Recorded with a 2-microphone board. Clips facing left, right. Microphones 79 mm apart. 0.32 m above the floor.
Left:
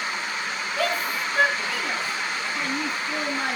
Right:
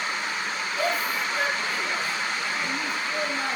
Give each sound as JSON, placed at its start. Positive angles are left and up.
{"t": 0.8, "sound": "a shout", "side_deg": 65, "distance_m": 5.0}